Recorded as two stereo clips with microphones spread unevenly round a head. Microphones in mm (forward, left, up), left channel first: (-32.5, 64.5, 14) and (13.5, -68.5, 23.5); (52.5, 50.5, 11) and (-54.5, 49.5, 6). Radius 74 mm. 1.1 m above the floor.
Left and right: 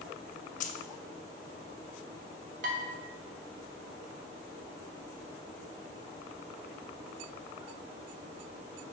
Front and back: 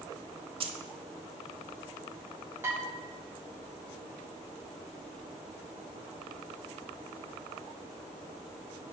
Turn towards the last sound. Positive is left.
turn(degrees=-105)